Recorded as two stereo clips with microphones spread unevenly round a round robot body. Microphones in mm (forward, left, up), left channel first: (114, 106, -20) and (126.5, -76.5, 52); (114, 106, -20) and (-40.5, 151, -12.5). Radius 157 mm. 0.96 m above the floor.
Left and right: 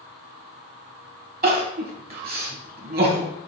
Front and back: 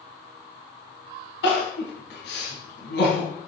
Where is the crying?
55° right, 2.5 m.